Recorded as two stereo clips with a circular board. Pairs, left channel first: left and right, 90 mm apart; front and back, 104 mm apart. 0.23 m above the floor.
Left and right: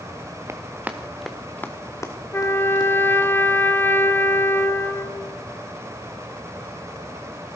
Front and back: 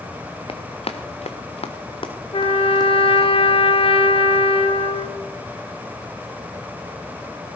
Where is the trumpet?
25° left, 1.0 m.